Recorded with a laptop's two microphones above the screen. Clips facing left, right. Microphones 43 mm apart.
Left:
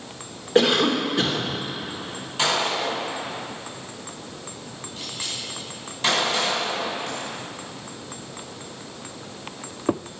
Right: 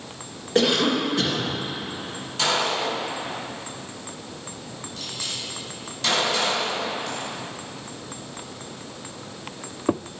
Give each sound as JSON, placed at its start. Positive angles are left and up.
{"t": 0.6, "sound": "a cough", "side_deg": 15, "distance_m": 1.3}
{"t": 2.4, "sound": "a gunshot", "side_deg": 20, "distance_m": 4.5}